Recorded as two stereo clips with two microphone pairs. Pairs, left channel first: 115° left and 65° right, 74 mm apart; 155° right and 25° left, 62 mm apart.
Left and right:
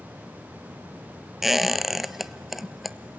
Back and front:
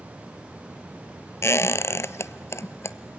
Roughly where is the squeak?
Behind right.